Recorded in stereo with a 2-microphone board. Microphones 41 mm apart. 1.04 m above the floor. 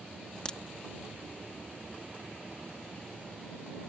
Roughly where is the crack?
Left.